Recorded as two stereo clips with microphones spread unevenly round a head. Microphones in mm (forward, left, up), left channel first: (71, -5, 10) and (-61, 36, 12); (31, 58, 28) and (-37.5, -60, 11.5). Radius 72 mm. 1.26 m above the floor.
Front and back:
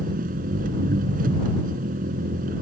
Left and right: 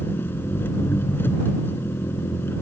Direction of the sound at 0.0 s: 135° left.